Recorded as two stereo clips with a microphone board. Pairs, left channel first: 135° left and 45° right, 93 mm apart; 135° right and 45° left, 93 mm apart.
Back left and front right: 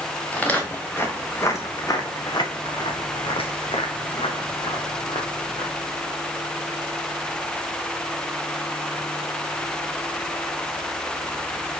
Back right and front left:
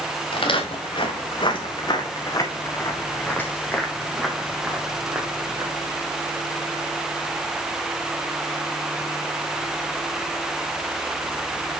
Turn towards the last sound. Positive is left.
turn(degrees=120)